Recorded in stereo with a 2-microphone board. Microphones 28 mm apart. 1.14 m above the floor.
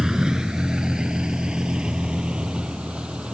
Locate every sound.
0.0 s a vehicle: 25° right (ahead or behind); by 3.3 s 40° right (ahead or behind)